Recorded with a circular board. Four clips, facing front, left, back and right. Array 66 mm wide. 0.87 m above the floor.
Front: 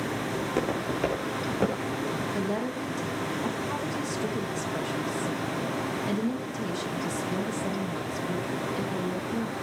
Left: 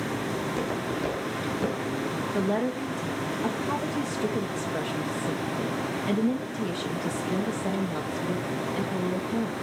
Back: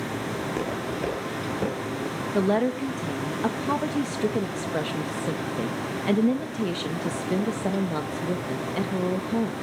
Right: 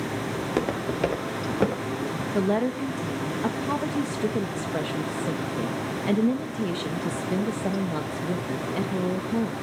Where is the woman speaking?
160° right, 0.9 m.